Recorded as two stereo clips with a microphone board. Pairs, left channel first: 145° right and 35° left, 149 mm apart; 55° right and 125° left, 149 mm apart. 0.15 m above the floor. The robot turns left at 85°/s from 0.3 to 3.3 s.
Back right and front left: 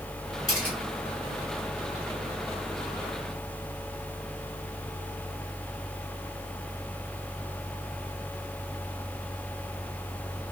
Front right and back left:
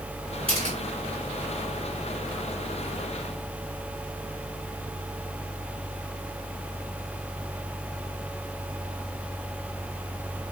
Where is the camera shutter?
160° left, 1.7 m; by 0.8 s 135° left, 1.7 m.